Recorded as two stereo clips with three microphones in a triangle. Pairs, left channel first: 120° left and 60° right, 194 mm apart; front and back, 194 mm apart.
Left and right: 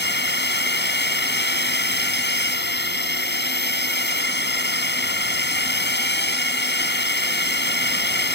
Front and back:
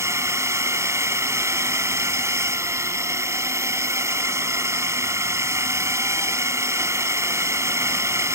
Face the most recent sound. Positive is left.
turn(degrees=105)